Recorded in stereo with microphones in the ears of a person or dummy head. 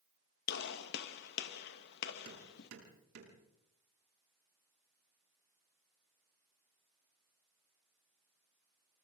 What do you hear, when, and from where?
0.5 s a gunshot: 60° left (ahead or behind), 1.8 m
2.2 s hammering: 75° right (ahead or behind), 8.5 m